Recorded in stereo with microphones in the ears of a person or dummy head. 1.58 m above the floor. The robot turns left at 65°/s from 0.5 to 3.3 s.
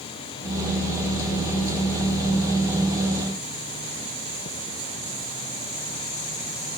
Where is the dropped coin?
No dropped coin in this recording.